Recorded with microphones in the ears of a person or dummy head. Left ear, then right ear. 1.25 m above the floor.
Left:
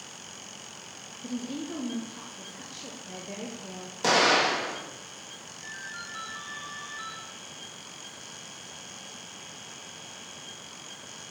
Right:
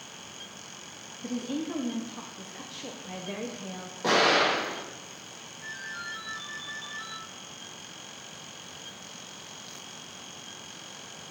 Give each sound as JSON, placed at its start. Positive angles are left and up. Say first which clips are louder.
{"t": 1.2, "sound": "a woman speaking", "louder": "right 3 dB", "side_deg": -30, "distance_m": 0.6}
{"t": 4.0, "sound": "an explosion", "louder": "even", "side_deg": 70, "distance_m": 1.8}
{"t": 5.6, "sound": "a ringtone", "louder": "right 2 dB", "side_deg": 35, "distance_m": 3.0}